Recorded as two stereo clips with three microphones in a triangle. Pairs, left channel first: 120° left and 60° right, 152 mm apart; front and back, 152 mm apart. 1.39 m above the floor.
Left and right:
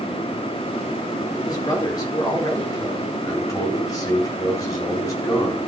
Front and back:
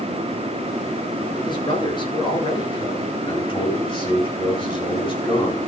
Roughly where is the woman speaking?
Ahead left.